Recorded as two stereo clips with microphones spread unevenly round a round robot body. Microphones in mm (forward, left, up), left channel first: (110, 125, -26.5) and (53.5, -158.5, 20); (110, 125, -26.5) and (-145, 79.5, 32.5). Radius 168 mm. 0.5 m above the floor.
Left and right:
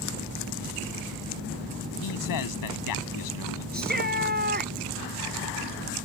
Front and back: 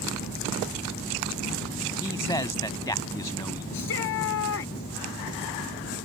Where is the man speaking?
85° left.